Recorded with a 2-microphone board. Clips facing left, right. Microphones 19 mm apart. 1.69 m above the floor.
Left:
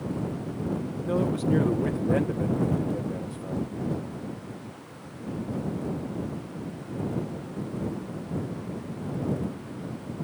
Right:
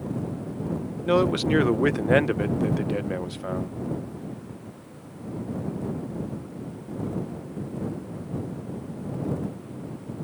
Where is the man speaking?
65° right (ahead or behind).